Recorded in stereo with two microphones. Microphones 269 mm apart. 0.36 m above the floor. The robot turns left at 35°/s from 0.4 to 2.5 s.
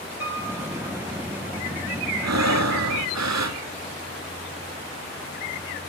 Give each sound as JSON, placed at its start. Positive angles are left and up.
{"t": 0.2, "sound": "a piano", "side_deg": -5, "distance_m": 8.5}
{"t": 2.2, "sound": "breathing", "side_deg": -70, "distance_m": 0.8}